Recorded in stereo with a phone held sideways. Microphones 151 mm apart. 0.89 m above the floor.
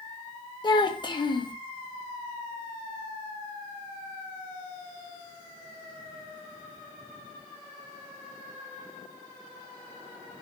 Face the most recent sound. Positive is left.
turn(degrees=30)  # may be behind; listen again after turning